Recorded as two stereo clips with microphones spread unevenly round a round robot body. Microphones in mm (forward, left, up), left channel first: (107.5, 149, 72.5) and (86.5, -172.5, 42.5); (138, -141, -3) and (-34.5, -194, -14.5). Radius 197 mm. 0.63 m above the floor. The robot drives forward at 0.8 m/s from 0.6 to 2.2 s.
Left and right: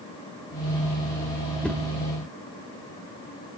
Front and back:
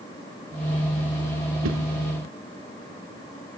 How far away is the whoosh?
About 1.7 m.